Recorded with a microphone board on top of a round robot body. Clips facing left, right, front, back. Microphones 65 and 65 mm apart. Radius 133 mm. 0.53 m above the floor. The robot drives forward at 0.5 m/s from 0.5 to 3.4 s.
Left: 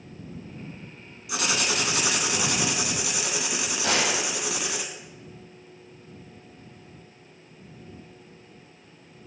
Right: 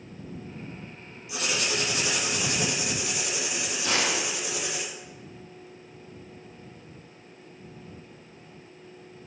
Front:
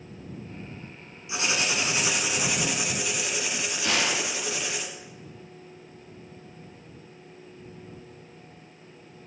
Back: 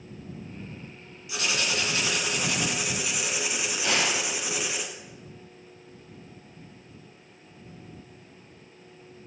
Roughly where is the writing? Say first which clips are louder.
Left 2 dB, front 1 dB; left.